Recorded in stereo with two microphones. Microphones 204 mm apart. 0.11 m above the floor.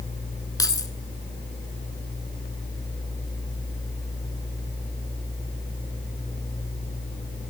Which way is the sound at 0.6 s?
20° left (ahead or behind).